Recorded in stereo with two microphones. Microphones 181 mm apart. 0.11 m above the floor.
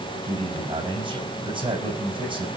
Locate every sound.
0.2 s a man speaking: 30° right (ahead or behind), 6.5 m